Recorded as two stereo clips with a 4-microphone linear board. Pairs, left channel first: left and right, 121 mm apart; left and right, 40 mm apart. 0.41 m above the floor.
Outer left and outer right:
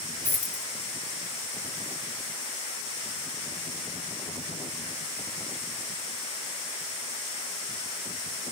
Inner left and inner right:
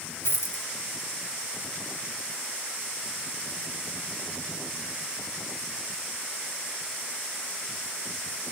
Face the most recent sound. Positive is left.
turn(degrees=85)